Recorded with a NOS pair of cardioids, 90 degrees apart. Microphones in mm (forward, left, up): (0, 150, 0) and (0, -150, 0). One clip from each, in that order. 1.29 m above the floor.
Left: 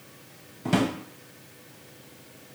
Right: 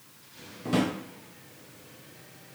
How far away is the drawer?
About 1.1 m.